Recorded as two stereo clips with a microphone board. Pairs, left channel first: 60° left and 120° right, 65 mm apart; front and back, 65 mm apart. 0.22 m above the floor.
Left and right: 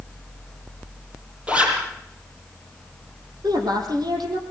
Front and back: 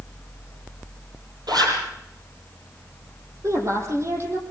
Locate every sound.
1.5 s a zipper: 170° left, 7 m
3.4 s a woman speaking: 135° right, 7 m